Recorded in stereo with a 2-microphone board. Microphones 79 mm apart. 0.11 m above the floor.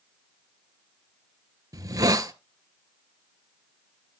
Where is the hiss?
45° right (ahead or behind), 0.8 m.